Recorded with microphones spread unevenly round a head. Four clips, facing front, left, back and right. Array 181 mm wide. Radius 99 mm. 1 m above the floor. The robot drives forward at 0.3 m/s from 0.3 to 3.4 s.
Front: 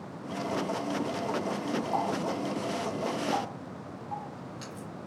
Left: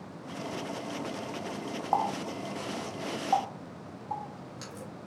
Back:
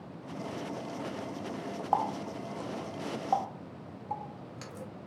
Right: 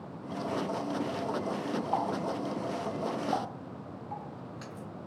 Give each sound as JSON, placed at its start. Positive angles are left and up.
{"t": 1.9, "sound": "a running tap", "azimuth_deg": 130, "distance_m": 0.5}